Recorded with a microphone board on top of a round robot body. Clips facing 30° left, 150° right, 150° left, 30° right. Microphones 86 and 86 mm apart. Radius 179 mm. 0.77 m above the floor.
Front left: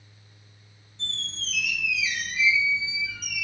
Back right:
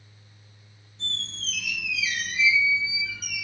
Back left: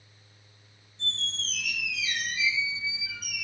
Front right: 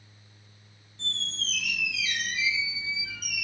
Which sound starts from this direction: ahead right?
A squeak, at 1.0 s.